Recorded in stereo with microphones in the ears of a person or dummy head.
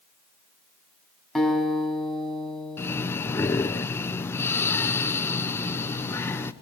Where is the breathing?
15° left (ahead or behind), 0.7 m.